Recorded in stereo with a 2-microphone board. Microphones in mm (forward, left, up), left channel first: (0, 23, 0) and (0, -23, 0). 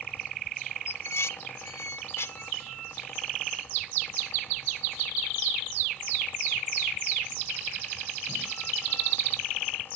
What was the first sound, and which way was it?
Dishes clattering, 70° left (ahead or behind).